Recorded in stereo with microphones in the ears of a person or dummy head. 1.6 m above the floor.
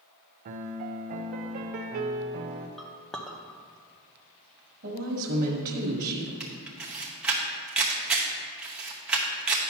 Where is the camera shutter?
5° right (ahead or behind), 0.9 m.